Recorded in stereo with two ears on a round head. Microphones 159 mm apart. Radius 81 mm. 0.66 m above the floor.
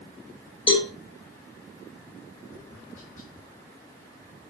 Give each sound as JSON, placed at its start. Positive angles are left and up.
{"t": 0.7, "sound": "a cowbell", "side_deg": 30, "distance_m": 2.0}
{"t": 2.3, "sound": "tapping", "side_deg": 50, "distance_m": 1.7}